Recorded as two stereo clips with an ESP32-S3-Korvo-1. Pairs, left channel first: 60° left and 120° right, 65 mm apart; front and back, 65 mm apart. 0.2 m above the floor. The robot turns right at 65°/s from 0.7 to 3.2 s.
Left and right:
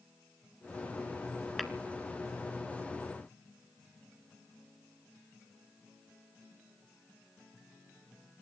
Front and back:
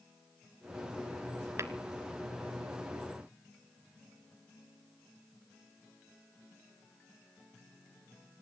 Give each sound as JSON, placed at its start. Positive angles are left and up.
{"t": 1.6, "sound": "tapping", "azimuth_deg": 150, "distance_m": 0.9}